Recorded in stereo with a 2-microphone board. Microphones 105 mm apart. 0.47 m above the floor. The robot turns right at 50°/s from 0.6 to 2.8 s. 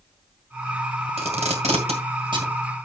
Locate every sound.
1.2 s tape being pulled: 65° right (ahead or behind), 2 m; by 2.5 s 35° right (ahead or behind), 2 m